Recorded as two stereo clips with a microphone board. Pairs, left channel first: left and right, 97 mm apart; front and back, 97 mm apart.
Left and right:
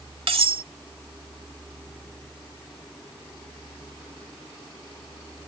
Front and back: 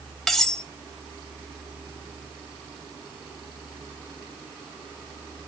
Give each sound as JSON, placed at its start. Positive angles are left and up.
{"t": 0.3, "sound": "cutlery clinking", "azimuth_deg": -85, "distance_m": 1.1}